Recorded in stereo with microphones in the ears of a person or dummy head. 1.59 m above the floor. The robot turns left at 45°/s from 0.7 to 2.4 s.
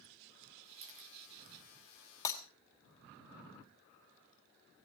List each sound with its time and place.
0.8 s a camera shutter: 30° right (ahead or behind), 3 m; by 1.1 s 45° right (ahead or behind), 3 m
2.2 s breaking glass: 20° left (ahead or behind), 2.5 m; by 2.4 s 15° left (ahead or behind), 2.5 m